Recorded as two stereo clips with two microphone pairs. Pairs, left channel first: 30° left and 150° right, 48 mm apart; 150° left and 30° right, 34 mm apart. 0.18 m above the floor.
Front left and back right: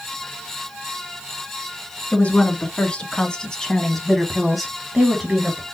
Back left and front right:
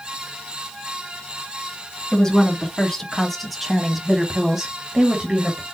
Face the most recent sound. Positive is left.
turn(degrees=-80)